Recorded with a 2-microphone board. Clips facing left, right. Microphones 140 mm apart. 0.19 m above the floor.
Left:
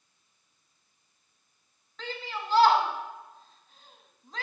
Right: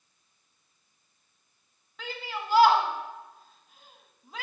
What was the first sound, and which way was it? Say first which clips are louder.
A shout: even; 10° right (ahead or behind).